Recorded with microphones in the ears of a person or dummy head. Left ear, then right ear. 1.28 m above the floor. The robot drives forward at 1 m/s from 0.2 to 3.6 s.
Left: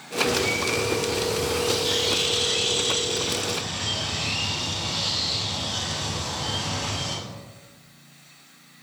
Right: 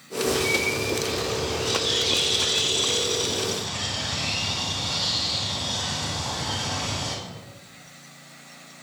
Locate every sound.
0.3 s a bird: 10° left (ahead or behind), 7 m; by 7.1 s 5° left (ahead or behind), 10.5 m